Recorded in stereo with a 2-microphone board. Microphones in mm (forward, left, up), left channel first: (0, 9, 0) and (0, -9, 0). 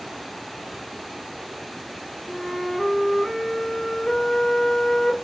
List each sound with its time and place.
2.3 s a flute: 25° left (ahead or behind), 1.7 m